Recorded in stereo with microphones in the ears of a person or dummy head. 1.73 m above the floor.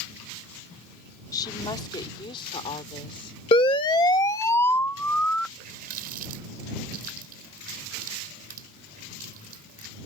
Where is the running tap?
45° right (ahead or behind).